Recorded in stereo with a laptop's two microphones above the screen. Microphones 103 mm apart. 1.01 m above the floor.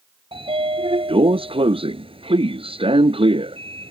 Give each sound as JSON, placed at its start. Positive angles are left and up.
{"t": 0.3, "sound": "a sliding door", "side_deg": -60}